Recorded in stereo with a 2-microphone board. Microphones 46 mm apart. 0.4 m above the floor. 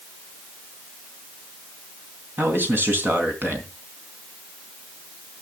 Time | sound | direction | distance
2.4 | a man speaking | 45° right (ahead or behind) | 3.5 m